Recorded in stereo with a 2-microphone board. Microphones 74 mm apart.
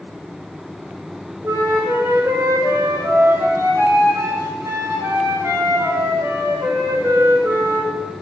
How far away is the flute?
About 2.0 m.